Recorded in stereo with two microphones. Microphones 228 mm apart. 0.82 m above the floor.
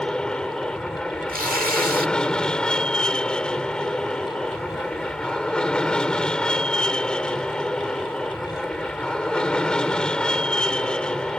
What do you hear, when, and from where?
0.0 s an aircraft: 5° left (ahead or behind)
1.3 s tearing paper: 35° right (ahead or behind)